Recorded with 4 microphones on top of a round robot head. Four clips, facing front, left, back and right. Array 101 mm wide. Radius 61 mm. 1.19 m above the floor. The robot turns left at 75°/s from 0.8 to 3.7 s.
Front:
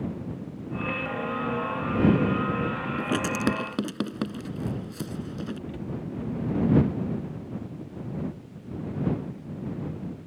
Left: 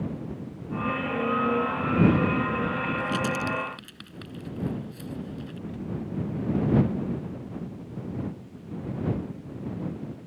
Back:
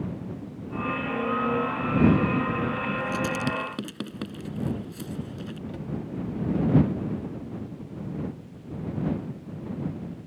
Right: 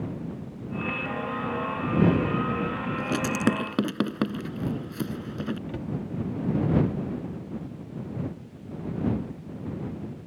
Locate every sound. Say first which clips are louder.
3.0 s writing: right 1 dB, front 1 dB; 20° right; by 5.6 s 70° right
5.7 s a cupboard door: right 2 dB, back 1 dB; 105° right